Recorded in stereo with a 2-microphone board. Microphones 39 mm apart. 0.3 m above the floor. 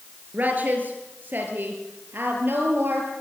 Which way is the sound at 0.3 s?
45° right (ahead or behind).